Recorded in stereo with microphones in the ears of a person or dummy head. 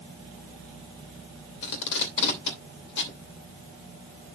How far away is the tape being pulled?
About 2.5 m.